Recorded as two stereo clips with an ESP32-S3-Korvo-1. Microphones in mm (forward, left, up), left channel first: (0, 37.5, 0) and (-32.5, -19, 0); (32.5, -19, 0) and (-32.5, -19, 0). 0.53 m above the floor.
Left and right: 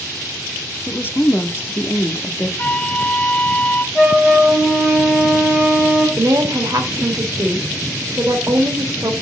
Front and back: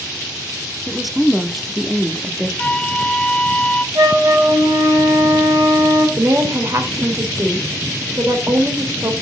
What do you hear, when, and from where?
0.9 s a woman speaking: 95° left, 0.8 m
2.6 s a flute: 45° left, 0.5 m
4.0 s a flute: 155° left, 2.0 m
6.2 s a woman speaking: 145° right, 2.0 m